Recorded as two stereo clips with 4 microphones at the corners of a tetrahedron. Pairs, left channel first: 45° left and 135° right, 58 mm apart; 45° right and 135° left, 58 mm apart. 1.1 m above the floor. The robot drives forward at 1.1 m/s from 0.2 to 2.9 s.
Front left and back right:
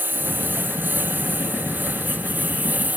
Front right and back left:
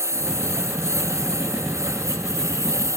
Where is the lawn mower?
170° left; by 3.0 s 165° left.